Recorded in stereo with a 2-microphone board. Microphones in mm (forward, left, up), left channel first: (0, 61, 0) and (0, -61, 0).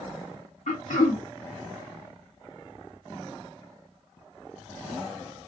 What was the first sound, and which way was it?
Throat clearing, 85° left.